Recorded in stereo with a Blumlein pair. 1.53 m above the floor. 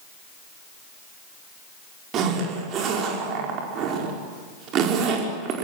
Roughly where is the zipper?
Ahead right.